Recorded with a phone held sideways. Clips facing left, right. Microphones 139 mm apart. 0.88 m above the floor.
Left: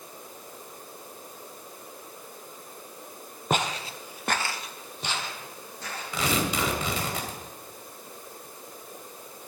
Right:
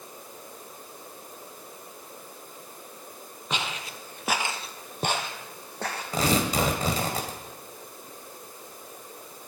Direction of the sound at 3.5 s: 50° left (ahead or behind).